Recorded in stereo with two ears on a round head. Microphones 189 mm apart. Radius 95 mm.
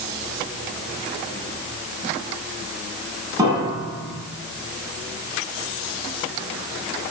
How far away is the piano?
About 5.5 m.